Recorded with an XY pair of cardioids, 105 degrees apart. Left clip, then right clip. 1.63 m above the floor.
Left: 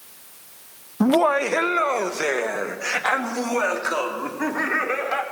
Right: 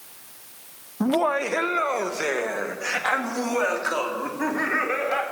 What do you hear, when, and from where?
1.0 s laughter: 35° left, 0.6 m; by 5.2 s 15° left, 5.5 m